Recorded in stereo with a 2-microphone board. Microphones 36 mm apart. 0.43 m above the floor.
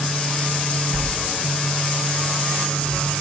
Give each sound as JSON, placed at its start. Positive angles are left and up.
{"t": 0.9, "sound": "a sliding door", "side_deg": 30, "distance_m": 3.0}